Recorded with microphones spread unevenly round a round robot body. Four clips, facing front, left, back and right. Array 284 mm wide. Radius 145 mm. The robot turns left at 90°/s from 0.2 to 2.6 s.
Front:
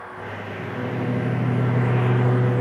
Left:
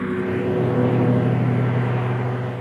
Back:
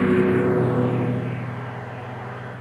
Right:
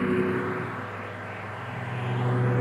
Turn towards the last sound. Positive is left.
turn(degrees=-30)